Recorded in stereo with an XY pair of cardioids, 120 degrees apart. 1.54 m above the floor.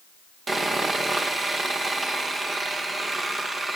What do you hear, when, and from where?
0.5 s sawing: 30° right, 2 m